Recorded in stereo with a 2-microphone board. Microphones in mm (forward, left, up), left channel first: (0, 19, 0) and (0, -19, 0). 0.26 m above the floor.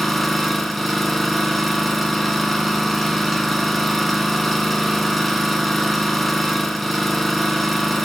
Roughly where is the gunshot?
I don't hear a gunshot.